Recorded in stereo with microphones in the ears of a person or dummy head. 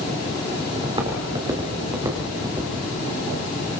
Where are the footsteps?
30° right (ahead or behind), 5 m; by 2.7 s 20° right (ahead or behind), 6 m.